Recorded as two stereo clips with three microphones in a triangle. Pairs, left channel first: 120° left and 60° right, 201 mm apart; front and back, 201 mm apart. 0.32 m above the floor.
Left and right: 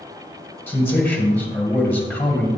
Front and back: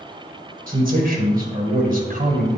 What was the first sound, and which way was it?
A man speaking, 165° right.